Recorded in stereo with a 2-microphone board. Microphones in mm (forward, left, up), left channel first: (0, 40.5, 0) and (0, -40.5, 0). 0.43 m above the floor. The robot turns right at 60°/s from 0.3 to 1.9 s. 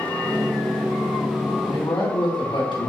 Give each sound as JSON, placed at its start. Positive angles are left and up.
{"t": 1.6, "sound": "a man speaking", "side_deg": 70, "distance_m": 3.5}